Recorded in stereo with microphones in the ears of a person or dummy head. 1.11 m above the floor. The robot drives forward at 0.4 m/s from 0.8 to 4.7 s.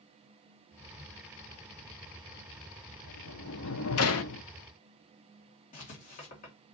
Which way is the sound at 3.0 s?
60° left (ahead or behind).